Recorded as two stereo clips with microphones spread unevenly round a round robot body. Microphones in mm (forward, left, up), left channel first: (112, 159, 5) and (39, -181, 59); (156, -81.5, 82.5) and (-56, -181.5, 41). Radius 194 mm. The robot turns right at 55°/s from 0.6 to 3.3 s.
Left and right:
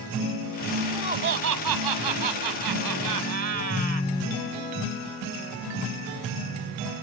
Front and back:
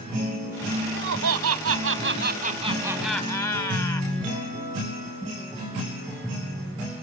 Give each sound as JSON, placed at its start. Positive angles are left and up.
{"t": 0.8, "sound": "laughter", "azimuth_deg": 170}